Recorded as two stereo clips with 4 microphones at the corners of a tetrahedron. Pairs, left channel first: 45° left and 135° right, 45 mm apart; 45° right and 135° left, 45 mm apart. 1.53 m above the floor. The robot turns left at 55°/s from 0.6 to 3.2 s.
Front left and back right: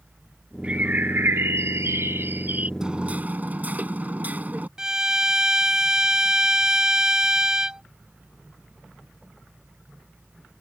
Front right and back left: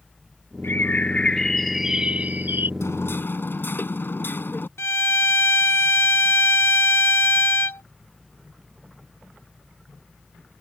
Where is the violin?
65° right.